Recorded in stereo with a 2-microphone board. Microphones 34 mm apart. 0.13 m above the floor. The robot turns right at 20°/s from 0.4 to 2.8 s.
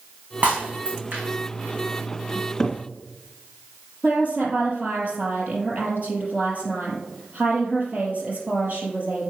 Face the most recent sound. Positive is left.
turn(degrees=-45)  # may be behind; listen again after turning